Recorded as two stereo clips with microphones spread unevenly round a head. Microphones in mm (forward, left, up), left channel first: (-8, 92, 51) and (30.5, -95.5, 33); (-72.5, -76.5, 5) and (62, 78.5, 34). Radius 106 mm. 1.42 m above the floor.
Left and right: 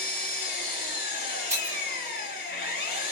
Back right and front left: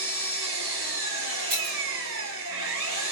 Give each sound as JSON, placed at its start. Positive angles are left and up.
{"t": 0.0, "sound": "an engine running", "azimuth_deg": 65, "distance_m": 2.5}
{"t": 1.5, "sound": "breaking glass", "azimuth_deg": 0, "distance_m": 2.5}